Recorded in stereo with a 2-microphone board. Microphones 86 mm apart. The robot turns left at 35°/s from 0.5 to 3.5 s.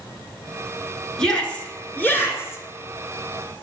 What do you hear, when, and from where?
1.2 s a shout: 10° left (ahead or behind), 1.4 m; by 2.6 s 30° left (ahead or behind), 1.4 m